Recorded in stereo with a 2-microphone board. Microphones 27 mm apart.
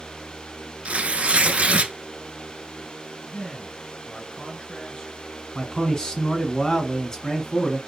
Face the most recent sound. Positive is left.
turn(degrees=30)  # may be behind; listen again after turning